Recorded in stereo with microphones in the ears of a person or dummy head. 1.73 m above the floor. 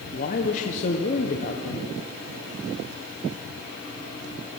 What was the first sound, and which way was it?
A woman speaking, 40° left (ahead or behind).